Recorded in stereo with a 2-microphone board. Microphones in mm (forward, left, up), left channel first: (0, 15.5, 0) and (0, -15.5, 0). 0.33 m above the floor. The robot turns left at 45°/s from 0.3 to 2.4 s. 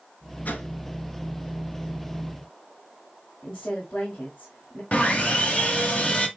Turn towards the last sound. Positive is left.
turn(degrees=45)  # may be behind; listen again after turning